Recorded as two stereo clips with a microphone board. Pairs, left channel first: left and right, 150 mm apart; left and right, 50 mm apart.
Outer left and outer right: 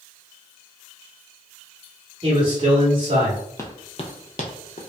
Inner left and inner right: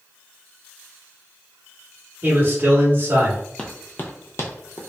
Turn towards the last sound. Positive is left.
turn(degrees=60)  # may be behind; listen again after turning